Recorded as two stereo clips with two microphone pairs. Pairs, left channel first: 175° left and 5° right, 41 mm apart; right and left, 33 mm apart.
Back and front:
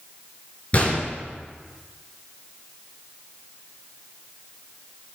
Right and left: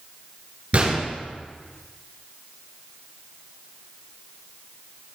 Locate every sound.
0.7 s a gunshot: 130° left, 3.5 m